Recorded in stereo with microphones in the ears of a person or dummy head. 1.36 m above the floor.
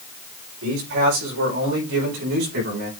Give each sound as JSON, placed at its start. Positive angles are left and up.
{"t": 0.6, "sound": "a man speaking", "side_deg": -80, "distance_m": 5.0}